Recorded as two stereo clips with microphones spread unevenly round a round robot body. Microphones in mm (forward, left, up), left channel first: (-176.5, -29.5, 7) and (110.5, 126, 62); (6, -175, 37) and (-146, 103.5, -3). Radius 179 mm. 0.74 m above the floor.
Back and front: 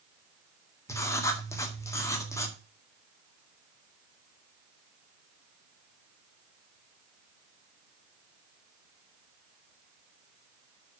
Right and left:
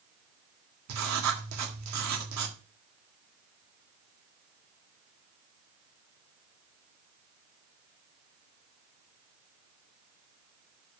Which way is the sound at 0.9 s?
135° left.